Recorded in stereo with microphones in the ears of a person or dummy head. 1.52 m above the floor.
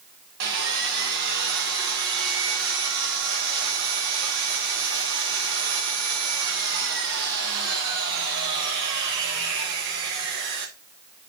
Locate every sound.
0.4 s sawing: 50° right (ahead or behind), 1.0 m